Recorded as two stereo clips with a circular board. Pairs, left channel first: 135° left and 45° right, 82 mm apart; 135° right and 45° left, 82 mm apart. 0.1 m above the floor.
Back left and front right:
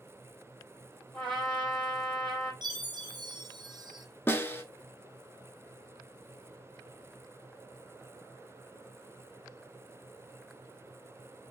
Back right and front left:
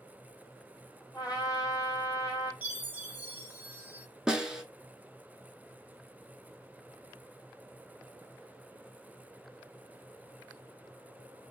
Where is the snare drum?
115° left, 0.5 m.